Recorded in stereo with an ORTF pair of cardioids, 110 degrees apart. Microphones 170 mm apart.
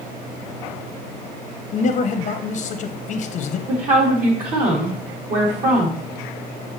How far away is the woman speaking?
About 3.5 m.